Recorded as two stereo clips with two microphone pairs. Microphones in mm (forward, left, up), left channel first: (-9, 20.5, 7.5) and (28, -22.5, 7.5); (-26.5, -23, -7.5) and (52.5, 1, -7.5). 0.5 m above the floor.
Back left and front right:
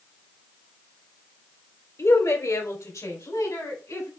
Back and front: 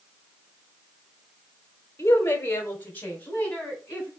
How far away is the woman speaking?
About 1.6 m.